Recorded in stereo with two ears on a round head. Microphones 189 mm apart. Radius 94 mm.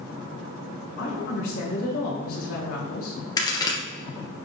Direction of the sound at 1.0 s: 40° left (ahead or behind).